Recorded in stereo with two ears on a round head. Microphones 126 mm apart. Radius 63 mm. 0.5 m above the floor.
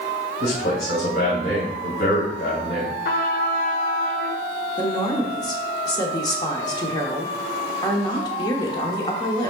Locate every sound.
0.4 s a man speaking: 65° left (ahead or behind), 3 m
3.0 s a trumpet: 65° left (ahead or behind), 1.3 m
4.8 s a woman speaking: 30° left (ahead or behind), 1.2 m